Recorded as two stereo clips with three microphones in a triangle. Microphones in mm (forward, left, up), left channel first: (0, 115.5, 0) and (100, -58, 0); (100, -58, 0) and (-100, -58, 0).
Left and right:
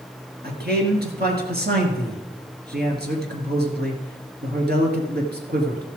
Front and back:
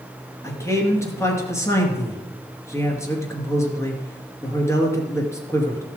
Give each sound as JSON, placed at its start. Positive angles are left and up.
{"t": 0.4, "sound": "a man speaking", "azimuth_deg": -75, "distance_m": 2.5}